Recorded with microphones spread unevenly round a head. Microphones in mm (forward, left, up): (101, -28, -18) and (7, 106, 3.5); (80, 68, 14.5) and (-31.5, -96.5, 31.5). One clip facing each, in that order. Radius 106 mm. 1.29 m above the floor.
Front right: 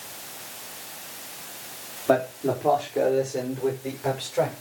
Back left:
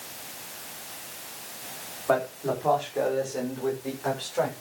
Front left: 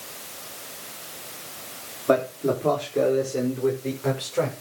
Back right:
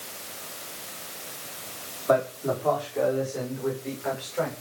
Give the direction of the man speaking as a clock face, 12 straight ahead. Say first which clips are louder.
Front right 3 dB, front left 2 dB; 12 o'clock.